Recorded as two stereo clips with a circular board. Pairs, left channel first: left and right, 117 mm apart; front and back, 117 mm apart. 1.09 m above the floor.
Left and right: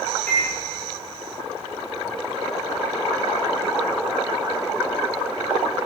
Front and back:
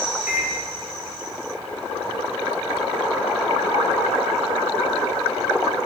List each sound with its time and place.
0.3 s a microwave: 105° right, 0.6 m